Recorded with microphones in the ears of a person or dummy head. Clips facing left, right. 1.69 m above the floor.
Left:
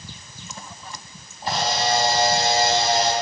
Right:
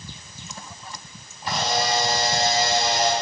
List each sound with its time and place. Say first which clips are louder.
1.4 s a camera shutter: left 1 dB; 30° left (ahead or behind), 6 m